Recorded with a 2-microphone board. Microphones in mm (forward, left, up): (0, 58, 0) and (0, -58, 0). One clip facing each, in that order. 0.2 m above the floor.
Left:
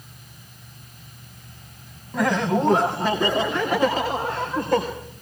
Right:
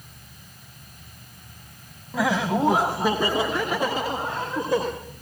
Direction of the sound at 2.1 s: 5° right (ahead or behind).